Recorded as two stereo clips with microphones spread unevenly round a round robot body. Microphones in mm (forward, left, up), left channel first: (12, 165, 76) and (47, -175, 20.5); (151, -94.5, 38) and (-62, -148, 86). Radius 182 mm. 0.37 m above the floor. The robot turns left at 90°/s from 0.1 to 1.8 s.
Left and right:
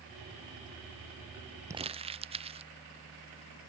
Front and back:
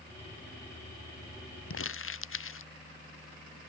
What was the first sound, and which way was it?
Crumpling, straight ahead.